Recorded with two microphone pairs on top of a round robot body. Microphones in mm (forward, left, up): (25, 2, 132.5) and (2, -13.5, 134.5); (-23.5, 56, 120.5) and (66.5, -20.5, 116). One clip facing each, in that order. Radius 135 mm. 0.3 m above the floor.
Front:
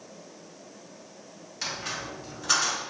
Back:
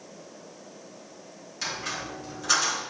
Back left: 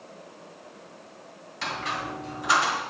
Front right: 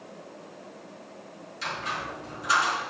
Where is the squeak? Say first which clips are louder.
Back 1 dB, back left 2 dB; 120° left, 2.5 m.